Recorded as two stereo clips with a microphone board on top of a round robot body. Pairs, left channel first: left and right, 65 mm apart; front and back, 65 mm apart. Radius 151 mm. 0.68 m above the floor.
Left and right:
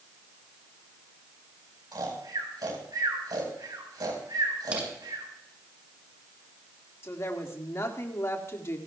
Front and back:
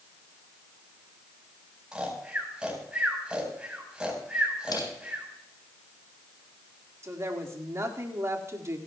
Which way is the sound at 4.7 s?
20° right.